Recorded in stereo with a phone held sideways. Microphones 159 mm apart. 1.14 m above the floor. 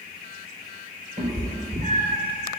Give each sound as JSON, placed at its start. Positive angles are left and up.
{"t": 1.2, "sound": "a cat meowing", "side_deg": -55, "distance_m": 3.5}